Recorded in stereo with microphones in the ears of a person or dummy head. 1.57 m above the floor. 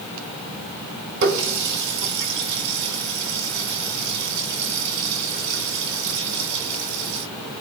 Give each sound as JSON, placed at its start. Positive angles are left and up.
{"t": 1.2, "sound": "a running tap", "side_deg": -55, "distance_m": 1.5}